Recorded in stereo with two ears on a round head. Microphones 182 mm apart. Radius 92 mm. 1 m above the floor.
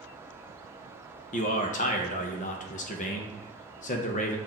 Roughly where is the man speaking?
Left.